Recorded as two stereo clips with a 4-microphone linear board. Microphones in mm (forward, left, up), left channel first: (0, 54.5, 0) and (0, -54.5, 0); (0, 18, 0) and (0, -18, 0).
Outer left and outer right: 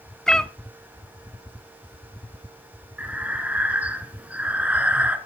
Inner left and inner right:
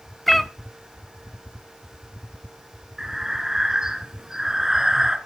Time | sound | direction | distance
0.3 | a cat meowing | 5° left (ahead or behind) | 0.6 m
3.0 | breathing | 15° right (ahead or behind) | 1.7 m